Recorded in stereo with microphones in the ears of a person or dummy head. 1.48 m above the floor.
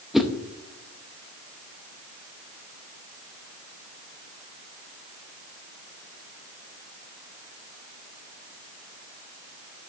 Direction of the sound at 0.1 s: 5° right (ahead or behind).